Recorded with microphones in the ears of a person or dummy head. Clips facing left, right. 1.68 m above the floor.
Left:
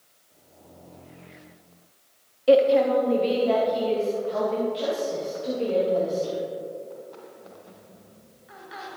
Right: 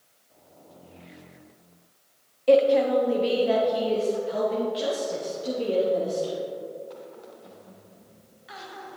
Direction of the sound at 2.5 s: Centre (ahead or behind).